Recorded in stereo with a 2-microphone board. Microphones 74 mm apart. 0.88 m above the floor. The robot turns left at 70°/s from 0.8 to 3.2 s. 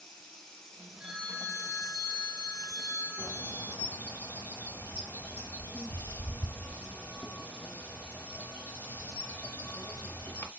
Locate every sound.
0.0 s running water: 10° left, 1.1 m; by 10.6 s 155° right, 1.1 m
1.0 s a phone ringing: 175° right, 0.7 m; by 3.8 s 30° left, 0.7 m
3.2 s a bird: 30° left (ahead or behind), 0.7 m